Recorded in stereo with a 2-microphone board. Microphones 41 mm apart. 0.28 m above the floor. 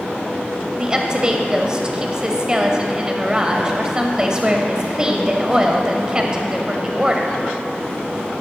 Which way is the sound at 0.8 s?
20° right (ahead or behind).